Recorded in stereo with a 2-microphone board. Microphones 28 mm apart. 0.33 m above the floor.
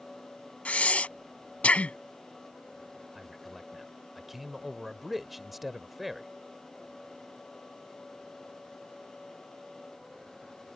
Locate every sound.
0.7 s breathing: 55° left (ahead or behind)
3.1 s a man speaking: 5° right (ahead or behind)